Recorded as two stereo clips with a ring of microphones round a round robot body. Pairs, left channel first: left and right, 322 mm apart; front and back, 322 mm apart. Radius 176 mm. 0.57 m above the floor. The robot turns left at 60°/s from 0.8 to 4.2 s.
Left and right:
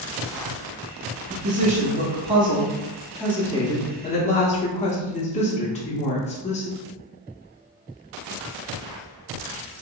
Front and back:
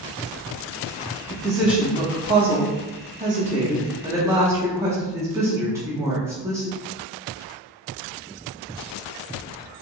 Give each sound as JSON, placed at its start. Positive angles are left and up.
{"t": 1.3, "sound": "a woman speaking", "azimuth_deg": -75, "distance_m": 0.6}